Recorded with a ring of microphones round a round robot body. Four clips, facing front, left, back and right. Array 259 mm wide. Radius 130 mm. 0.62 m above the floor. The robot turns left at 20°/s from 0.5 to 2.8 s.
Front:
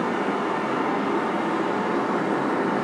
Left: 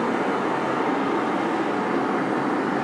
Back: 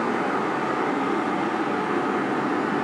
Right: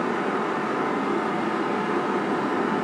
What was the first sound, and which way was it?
Running water, 80° left.